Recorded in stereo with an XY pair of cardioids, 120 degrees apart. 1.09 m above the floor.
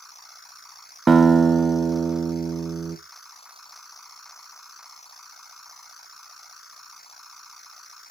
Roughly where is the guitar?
Ahead right.